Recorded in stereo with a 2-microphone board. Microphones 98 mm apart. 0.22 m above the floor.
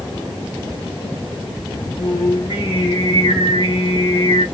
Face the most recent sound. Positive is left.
turn(degrees=65)  # may be behind; listen again after turning